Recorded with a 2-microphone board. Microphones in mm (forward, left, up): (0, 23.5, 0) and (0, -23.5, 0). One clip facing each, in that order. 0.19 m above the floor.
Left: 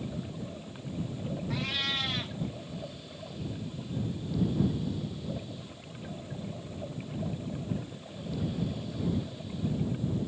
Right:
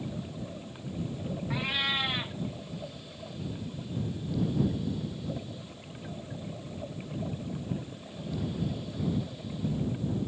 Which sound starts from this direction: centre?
A cat meowing, at 1.5 s.